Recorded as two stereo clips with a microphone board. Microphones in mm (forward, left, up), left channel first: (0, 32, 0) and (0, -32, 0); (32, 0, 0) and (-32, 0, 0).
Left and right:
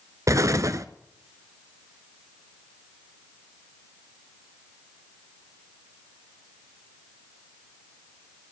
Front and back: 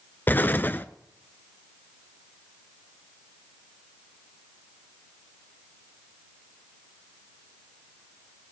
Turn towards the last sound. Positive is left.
turn(degrees=-55)